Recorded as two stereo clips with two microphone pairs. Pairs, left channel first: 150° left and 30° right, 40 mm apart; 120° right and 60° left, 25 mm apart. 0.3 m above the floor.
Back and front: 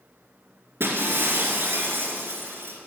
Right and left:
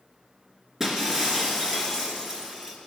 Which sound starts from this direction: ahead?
Breaking glass, at 0.8 s.